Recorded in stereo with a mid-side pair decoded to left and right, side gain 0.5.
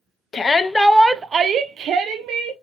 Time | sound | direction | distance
0.3 | a shout | 35° left | 0.7 m